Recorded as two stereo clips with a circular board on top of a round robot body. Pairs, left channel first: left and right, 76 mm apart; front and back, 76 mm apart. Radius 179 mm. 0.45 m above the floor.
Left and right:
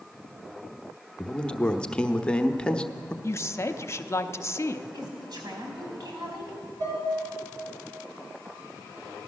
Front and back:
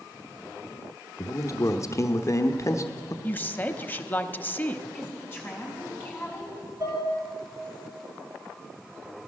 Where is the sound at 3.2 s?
55° left, 1.0 m.